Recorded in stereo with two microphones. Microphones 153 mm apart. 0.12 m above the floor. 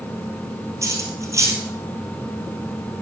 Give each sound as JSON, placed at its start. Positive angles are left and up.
{"t": 0.8, "sound": "cutlery clinking", "side_deg": -20, "distance_m": 1.8}